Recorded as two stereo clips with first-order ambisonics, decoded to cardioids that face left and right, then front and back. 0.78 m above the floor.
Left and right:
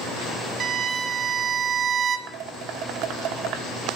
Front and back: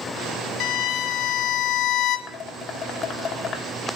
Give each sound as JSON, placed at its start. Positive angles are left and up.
{"t": 0.6, "sound": "a violin", "azimuth_deg": -35, "distance_m": 0.6}
{"t": 2.3, "sound": "dishes clattering", "azimuth_deg": -60, "distance_m": 1.0}